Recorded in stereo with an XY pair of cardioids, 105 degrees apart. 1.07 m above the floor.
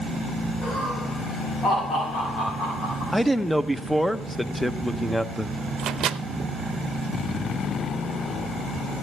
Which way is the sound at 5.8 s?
65° right.